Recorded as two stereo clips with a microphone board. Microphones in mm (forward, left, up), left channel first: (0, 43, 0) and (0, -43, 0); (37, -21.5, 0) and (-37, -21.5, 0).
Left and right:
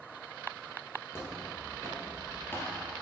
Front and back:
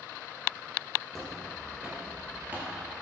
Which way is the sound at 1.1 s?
80° left.